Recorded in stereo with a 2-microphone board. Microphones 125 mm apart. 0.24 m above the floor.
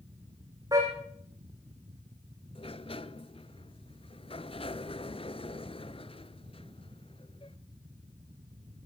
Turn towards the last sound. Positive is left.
turn(degrees=50)  # may be behind; listen again after turning